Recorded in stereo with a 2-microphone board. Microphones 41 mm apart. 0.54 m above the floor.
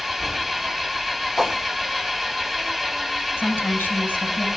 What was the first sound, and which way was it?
An engine running, centre (ahead or behind).